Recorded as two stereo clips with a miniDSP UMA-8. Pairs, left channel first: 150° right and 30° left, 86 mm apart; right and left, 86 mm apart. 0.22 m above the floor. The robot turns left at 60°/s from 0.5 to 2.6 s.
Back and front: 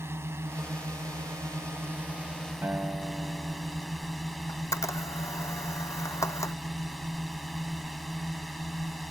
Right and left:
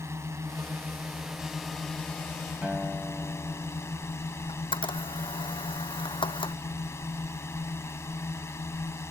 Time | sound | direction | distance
0.0 | a drone | 65° left | ?
2.6 | a guitar | 30° left | ?
4.5 | a camera shutter | 100° right | ?